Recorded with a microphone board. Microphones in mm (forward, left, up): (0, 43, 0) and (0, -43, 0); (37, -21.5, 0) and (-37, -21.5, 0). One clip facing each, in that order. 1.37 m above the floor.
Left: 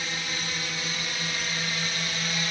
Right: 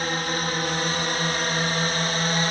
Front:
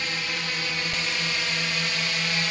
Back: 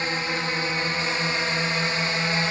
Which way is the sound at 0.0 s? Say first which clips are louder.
Right 8 dB, back 4 dB; 125° right.